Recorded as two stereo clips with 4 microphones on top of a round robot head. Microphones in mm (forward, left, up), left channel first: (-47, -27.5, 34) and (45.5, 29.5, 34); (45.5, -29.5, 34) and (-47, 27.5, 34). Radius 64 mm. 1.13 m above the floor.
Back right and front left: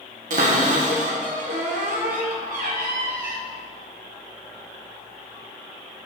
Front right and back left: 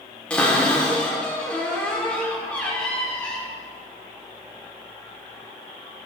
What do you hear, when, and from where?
0.3 s a cupboard door: 50° left, 1.3 m